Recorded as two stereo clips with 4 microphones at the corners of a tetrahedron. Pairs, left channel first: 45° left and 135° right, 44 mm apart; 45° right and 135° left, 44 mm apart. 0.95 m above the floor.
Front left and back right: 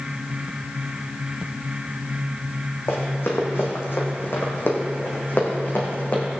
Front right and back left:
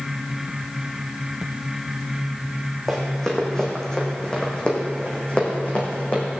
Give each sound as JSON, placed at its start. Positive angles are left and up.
{"t": 2.9, "sound": "running footsteps", "azimuth_deg": 35, "distance_m": 3.5}